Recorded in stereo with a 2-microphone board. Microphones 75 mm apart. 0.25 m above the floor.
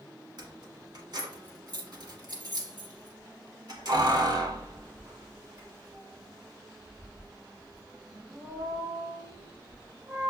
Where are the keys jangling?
60° right (ahead or behind), 1.3 m.